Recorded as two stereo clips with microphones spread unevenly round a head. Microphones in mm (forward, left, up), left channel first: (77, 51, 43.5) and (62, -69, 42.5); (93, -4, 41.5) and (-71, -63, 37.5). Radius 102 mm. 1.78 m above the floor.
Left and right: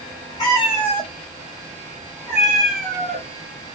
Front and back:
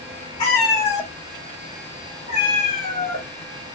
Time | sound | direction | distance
0.4 | a cat meowing | 55° left | 1.5 m